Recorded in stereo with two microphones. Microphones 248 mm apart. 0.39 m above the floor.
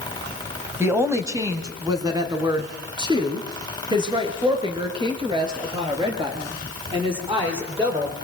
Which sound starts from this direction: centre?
A woman speaking, at 0.8 s.